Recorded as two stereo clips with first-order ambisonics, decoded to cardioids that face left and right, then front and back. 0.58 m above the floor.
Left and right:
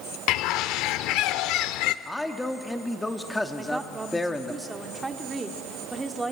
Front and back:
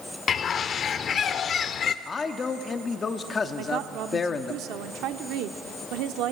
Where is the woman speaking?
170° right, 1.0 m.